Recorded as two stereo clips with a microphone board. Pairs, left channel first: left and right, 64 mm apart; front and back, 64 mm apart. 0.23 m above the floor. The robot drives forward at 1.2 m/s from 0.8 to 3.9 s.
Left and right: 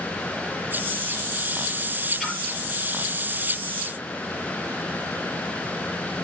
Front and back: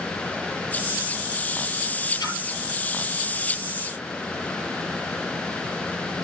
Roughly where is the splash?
Ahead.